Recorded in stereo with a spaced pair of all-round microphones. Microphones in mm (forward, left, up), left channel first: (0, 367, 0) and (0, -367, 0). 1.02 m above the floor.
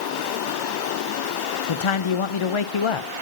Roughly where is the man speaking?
Left.